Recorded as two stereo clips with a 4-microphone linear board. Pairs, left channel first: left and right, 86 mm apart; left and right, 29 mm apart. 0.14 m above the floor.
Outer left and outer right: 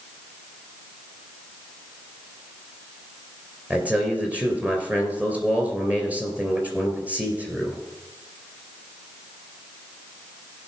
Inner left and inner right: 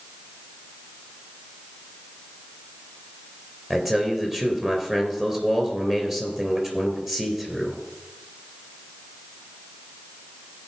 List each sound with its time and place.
3.7 s a man speaking: 15° right (ahead or behind), 2.5 m